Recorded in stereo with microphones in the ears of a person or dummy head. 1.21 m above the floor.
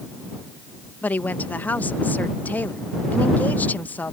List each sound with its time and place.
1.0 s a woman speaking: 10° left (ahead or behind)